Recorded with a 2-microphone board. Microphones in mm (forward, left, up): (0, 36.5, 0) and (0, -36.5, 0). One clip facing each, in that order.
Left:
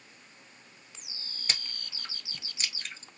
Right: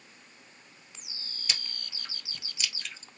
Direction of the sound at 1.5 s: 40° left (ahead or behind).